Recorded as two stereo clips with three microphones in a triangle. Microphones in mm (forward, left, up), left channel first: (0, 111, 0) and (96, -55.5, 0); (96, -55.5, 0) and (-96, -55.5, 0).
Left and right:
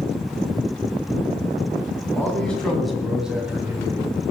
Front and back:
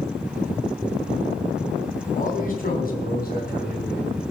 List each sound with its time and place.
2.1 s a man speaking: 40° left, 3.5 m; by 4.1 s 15° left, 2.5 m